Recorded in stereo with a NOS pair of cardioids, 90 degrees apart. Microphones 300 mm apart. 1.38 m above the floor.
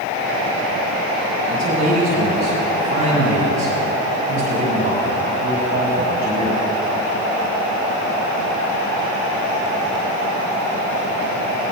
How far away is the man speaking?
About 5.5 m.